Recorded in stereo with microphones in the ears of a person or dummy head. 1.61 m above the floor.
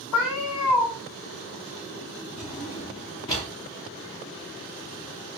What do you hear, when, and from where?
0.1 s a cat meowing: 45° left (ahead or behind), 1.9 m
2.4 s a drawer: 25° left (ahead or behind), 0.7 m